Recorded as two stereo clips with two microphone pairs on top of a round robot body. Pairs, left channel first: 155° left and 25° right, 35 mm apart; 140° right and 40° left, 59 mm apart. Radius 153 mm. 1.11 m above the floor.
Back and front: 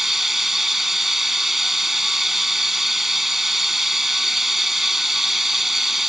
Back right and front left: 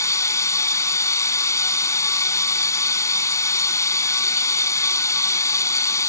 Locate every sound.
0.0 s running water: 110° right